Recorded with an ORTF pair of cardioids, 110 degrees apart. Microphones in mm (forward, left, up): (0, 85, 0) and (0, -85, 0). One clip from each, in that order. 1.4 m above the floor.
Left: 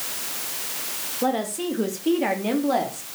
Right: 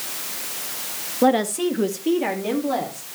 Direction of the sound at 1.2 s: 40° right.